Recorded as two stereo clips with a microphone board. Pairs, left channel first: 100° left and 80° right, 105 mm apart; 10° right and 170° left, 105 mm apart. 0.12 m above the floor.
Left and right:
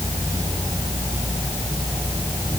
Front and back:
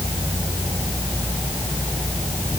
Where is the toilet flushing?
I don't hear a toilet flushing.